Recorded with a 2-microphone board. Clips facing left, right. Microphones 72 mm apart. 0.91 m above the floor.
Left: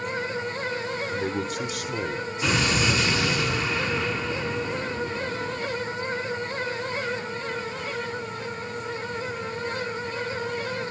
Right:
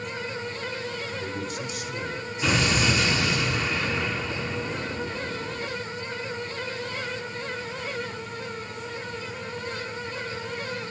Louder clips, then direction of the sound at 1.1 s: Left 4 dB; 75° left (ahead or behind).